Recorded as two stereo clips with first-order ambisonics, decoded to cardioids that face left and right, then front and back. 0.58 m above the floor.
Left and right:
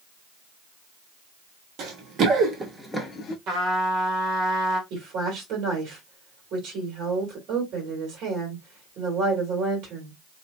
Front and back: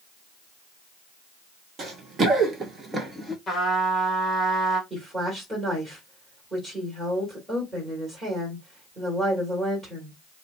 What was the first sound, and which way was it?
Running footsteps, 120° right.